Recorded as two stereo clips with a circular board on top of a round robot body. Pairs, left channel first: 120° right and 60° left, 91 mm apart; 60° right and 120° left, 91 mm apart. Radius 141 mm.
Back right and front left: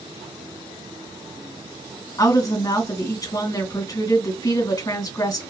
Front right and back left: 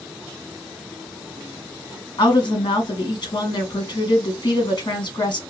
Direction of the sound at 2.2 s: 85° right.